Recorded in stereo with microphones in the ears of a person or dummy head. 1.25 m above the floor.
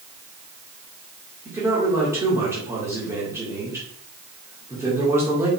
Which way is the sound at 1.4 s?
15° right (ahead or behind).